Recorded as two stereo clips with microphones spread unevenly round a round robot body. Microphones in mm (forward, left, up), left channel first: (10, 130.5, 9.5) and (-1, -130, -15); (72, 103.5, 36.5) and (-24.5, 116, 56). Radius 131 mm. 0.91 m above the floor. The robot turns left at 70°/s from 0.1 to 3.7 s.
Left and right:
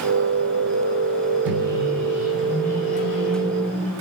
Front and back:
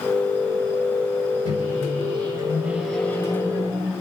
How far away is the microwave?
About 3.5 m.